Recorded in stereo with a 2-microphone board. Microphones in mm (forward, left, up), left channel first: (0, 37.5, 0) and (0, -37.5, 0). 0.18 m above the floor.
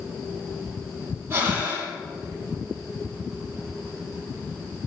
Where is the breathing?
30° right (ahead or behind), 6 m.